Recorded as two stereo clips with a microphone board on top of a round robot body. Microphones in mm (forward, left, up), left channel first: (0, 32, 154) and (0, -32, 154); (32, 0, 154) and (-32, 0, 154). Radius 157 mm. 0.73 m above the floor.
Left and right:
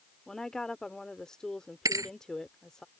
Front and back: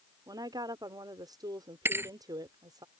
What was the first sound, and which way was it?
A woman speaking, 170° left.